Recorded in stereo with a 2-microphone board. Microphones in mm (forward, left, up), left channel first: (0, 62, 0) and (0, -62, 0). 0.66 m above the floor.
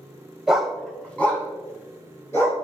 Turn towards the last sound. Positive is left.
turn(degrees=20)  # may be behind; listen again after turning